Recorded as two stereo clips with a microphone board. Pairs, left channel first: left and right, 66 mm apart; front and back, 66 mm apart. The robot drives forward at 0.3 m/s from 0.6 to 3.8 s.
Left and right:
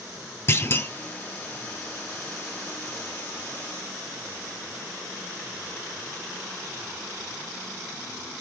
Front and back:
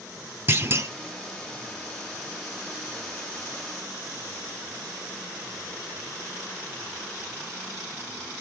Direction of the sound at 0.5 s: 135° left.